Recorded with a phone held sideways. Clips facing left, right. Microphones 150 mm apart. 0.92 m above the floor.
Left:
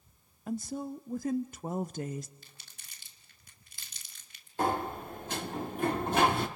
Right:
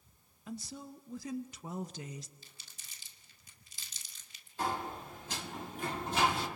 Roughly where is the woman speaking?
Left.